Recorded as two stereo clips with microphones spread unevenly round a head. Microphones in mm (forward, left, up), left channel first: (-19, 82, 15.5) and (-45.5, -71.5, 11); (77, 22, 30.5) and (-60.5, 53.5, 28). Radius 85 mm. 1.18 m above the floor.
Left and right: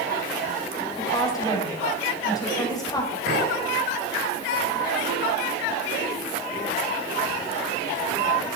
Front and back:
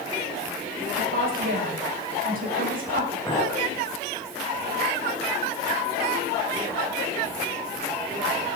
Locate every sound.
1.0 s a woman speaking: 145° left, 5 m
3.3 s a clink: 80° right, 5.5 m